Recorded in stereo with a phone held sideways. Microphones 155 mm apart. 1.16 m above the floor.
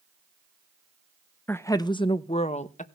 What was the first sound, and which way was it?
A woman speaking, 10° left (ahead or behind).